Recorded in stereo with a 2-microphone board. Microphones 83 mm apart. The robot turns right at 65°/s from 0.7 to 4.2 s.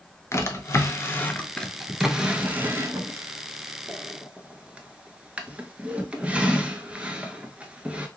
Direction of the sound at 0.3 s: 35° left (ahead or behind).